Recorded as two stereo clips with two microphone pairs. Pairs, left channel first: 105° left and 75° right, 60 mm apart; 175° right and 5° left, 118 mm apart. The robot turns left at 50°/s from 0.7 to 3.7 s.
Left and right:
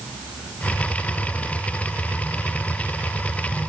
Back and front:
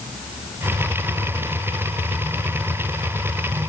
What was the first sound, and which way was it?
Only background noise.